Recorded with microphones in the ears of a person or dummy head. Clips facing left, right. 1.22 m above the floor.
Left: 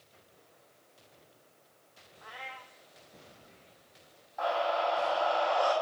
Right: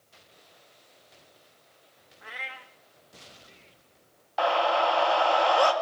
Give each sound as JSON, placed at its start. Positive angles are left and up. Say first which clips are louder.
{"t": 2.2, "sound": "a cat meowing", "louder": "right 2 dB", "side_deg": -20, "distance_m": 0.7}
{"t": 4.4, "sound": "a scream", "louder": "right 6 dB", "side_deg": -75, "distance_m": 1.6}